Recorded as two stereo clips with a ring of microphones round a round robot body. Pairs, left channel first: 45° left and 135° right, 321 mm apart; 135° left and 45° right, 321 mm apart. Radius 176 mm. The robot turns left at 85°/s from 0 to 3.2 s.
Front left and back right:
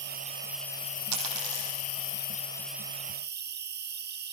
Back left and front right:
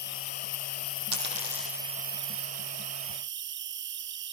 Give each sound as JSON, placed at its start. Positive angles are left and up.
{"t": 0.0, "sound": "an insect", "azimuth_deg": -175, "distance_m": 0.8}
{"t": 1.1, "sound": "a dropped coin", "azimuth_deg": -90, "distance_m": 5.5}